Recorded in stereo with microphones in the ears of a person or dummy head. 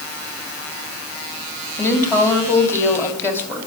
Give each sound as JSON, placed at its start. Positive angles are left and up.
{"t": 1.8, "sound": "a woman speaking", "side_deg": 20, "distance_m": 2.5}